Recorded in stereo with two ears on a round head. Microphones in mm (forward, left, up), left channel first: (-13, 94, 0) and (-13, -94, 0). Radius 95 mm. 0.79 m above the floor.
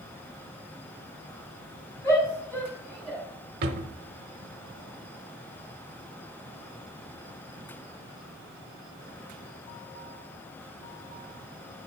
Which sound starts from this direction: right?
A drawer, at 3.6 s.